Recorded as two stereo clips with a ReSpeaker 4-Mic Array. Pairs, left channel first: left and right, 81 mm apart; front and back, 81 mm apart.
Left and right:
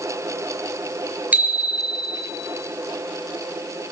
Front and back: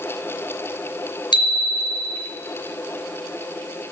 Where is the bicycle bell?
20° right, 4 m.